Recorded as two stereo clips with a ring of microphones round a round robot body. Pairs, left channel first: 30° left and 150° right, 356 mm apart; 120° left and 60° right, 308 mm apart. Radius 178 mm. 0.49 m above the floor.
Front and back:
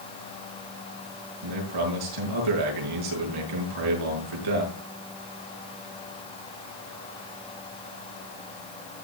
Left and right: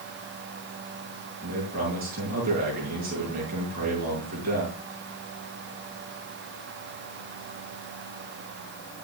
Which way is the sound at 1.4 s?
125° right.